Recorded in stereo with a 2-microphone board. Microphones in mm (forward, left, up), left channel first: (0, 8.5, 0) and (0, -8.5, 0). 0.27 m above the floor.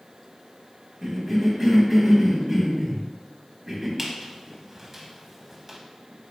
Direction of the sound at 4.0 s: 15° right (ahead or behind).